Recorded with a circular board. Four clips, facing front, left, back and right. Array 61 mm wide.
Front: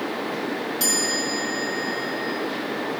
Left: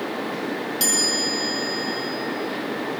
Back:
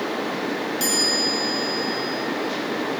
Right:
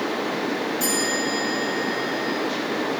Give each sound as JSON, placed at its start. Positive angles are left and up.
{"t": 0.8, "sound": "a chime", "azimuth_deg": 90, "distance_m": 4.0}